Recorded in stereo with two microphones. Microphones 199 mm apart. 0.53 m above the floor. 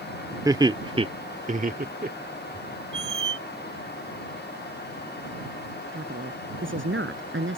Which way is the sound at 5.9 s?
80° right.